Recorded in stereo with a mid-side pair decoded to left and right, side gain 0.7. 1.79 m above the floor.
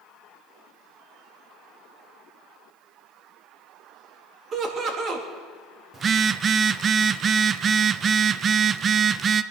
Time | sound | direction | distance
4.5 | laughter | 40° right | 3.5 m
5.9 | a phone buzzing | 35° right | 0.6 m